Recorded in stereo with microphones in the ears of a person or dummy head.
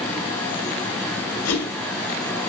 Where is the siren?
No siren in this recording.